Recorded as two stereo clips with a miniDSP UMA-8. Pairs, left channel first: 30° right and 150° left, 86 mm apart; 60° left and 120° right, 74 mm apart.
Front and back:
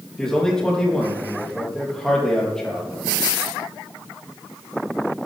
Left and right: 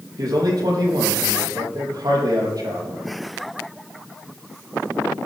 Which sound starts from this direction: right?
A man speaking, at 0.2 s.